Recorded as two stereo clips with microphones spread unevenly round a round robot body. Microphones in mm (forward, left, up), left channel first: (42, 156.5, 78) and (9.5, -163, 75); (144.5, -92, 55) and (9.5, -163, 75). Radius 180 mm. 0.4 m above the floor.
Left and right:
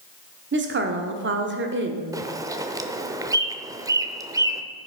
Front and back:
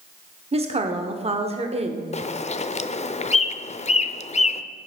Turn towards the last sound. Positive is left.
turn(degrees=-15)